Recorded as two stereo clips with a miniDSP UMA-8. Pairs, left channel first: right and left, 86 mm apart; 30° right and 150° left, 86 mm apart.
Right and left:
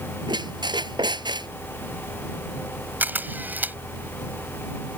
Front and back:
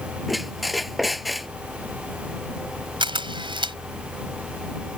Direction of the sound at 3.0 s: 160° left.